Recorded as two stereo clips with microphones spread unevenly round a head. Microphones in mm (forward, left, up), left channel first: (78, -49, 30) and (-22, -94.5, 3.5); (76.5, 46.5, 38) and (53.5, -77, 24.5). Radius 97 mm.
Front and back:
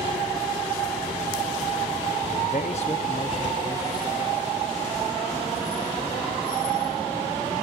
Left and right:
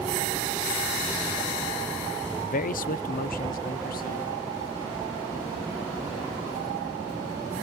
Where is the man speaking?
65° left; by 4.3 s 95° left.